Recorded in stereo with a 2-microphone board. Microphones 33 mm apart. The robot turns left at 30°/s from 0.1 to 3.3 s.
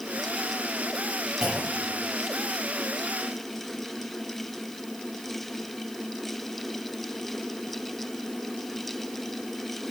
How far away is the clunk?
About 6.5 m.